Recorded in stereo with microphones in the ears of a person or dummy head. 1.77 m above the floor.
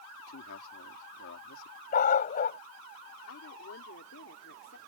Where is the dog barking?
50° left (ahead or behind).